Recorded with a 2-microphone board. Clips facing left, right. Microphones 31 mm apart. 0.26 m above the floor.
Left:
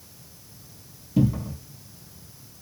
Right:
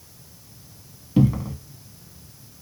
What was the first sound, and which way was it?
A cupboard door, 45° right (ahead or behind).